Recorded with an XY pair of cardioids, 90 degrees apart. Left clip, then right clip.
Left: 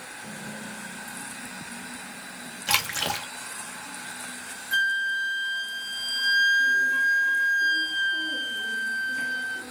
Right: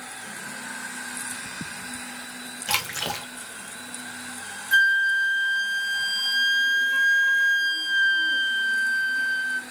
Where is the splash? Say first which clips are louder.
Left 2 dB; 20° left, 0.9 m.